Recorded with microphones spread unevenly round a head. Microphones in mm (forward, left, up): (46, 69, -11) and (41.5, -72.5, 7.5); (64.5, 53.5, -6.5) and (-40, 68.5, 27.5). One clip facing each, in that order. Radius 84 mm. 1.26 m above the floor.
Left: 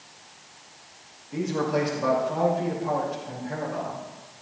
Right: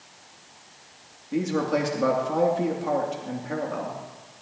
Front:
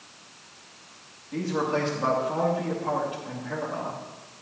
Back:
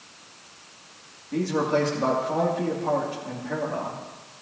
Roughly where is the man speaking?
Behind right.